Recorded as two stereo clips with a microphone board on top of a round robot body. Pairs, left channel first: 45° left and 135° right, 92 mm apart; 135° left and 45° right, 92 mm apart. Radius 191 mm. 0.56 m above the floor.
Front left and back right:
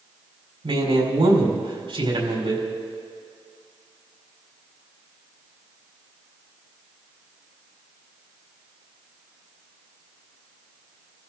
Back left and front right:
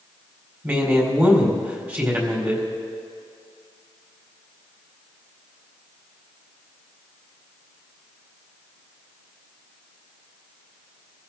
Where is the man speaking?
115° right, 4 m.